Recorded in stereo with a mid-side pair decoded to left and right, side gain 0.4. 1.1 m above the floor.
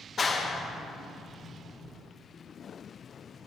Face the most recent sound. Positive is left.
turn(degrees=40)